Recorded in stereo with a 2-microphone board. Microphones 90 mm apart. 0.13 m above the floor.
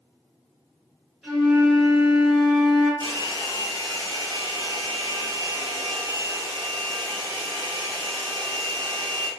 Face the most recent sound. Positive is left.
turn(degrees=-60)  # may be behind; listen again after turning